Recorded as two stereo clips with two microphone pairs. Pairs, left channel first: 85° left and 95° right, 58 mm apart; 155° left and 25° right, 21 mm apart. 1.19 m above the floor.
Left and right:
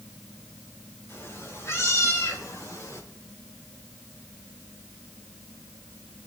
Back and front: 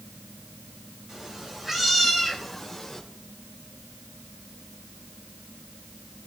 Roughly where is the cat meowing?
Ahead left.